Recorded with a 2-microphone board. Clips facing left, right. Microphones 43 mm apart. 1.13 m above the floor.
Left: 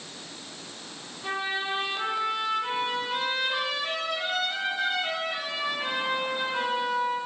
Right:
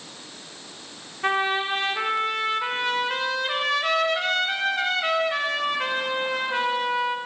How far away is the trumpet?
About 1.0 m.